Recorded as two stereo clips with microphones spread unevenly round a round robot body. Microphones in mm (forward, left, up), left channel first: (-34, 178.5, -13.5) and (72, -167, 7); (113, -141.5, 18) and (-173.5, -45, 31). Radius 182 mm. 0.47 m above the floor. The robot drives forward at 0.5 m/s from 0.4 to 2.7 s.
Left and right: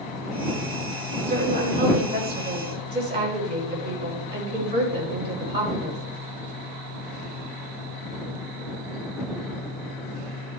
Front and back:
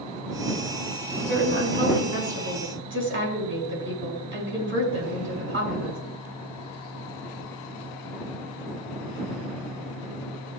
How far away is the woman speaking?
About 5.5 m.